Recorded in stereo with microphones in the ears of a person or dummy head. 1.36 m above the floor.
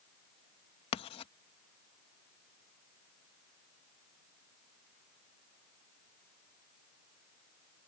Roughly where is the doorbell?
I don't hear a doorbell.